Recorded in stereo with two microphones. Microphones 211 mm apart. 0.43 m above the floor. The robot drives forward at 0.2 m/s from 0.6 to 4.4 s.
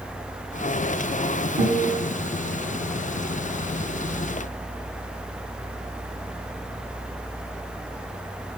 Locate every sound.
1.6 s a guitar: 15° right (ahead or behind), 4 m